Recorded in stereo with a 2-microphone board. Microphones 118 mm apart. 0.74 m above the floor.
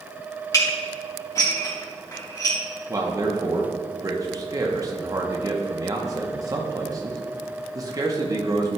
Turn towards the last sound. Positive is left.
turn(degrees=-30)  # may be behind; listen again after turning